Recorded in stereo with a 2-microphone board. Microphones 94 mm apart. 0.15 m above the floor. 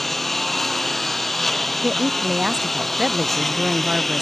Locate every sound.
0.0 s a lawn mower: centre (ahead or behind)
1.8 s a woman speaking: 5° right (ahead or behind)